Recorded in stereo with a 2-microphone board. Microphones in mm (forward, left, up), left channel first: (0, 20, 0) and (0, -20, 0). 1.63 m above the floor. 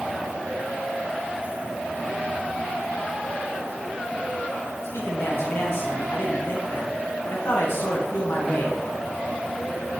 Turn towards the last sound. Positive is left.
turn(degrees=75)  # may be behind; listen again after turning